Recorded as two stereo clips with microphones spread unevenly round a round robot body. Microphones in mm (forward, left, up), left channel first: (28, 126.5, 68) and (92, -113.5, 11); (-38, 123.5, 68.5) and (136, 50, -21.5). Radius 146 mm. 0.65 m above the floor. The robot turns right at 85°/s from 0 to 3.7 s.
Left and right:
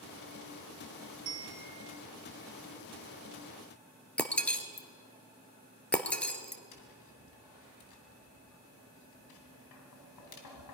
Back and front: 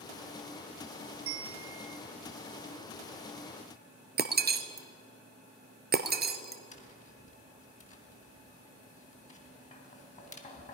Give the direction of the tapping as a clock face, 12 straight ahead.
9 o'clock.